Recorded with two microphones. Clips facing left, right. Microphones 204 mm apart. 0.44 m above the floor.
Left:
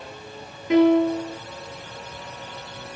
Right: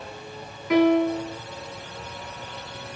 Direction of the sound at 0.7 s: 25° left (ahead or behind).